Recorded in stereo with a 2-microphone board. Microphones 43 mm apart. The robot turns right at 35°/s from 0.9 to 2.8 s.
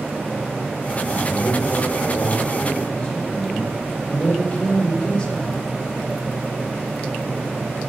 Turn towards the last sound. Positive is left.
turn(degrees=155)